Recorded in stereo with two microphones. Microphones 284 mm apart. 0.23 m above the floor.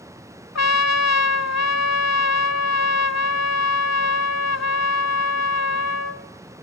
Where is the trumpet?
65° left (ahead or behind), 0.7 m.